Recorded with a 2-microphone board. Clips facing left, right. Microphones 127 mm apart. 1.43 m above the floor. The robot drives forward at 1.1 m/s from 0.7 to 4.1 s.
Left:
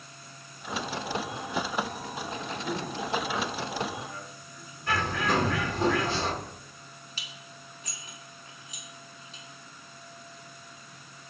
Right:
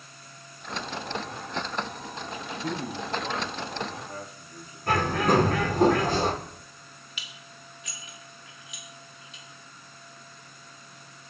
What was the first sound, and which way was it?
A man speaking, 85° right.